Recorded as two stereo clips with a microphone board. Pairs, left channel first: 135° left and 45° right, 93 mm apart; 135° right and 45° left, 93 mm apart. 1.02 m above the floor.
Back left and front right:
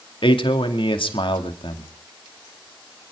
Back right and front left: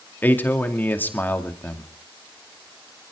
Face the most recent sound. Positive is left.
turn(degrees=155)